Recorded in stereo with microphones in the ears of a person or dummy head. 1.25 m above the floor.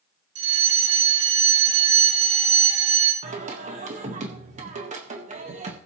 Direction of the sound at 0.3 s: 35° right (ahead or behind).